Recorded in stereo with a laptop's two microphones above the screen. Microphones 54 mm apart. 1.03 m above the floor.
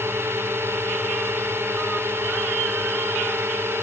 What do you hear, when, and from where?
0.0 s a drone: 50° right (ahead or behind)